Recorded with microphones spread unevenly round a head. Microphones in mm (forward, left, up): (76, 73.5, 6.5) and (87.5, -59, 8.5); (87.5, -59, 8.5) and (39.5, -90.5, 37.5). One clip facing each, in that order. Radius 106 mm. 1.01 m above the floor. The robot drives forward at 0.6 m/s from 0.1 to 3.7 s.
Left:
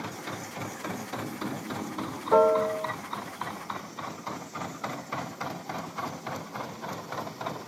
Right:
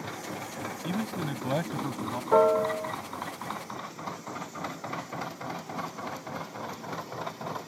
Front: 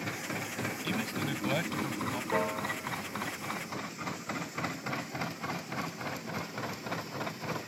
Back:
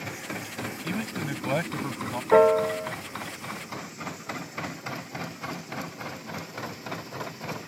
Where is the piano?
175° right; by 2.9 s straight behind.